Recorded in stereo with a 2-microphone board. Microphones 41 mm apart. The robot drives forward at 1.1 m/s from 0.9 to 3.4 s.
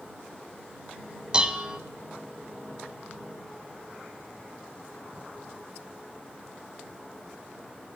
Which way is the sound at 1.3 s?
20° right (ahead or behind).